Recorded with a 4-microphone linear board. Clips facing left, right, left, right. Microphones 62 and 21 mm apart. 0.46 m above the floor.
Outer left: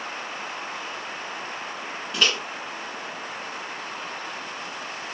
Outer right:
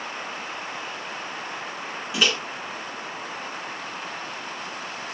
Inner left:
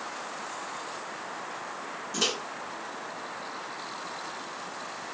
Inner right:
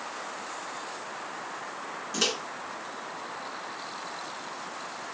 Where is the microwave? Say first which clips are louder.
Outer right 1 dB, inner right 1 dB; 5° right (ahead or behind), 0.6 m.